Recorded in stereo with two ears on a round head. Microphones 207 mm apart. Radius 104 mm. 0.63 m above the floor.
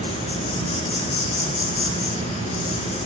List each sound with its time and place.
0.0 s an insect: 35° left (ahead or behind), 4.5 m